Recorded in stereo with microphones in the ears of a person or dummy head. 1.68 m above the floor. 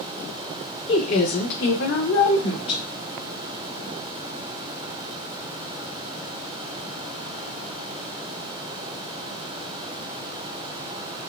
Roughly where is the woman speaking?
Left.